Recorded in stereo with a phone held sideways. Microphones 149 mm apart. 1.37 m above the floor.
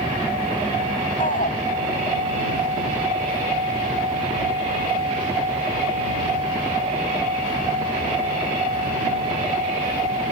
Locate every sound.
1.2 s a shout: 65° left (ahead or behind)